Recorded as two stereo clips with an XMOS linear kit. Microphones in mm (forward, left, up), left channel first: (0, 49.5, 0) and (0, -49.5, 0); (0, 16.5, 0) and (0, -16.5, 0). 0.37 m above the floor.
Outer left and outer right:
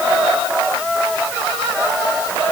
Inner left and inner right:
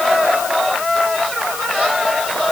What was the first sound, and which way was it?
Only background noise.